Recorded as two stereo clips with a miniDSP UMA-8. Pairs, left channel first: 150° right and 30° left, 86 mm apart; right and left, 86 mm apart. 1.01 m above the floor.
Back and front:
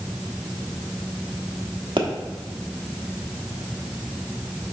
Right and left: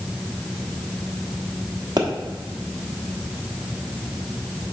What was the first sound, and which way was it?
A pop, 55° left.